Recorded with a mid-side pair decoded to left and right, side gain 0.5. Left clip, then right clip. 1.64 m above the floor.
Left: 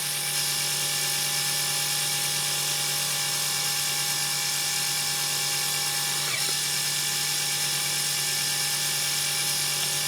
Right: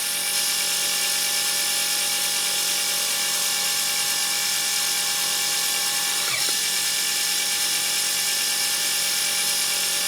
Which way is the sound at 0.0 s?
25° right.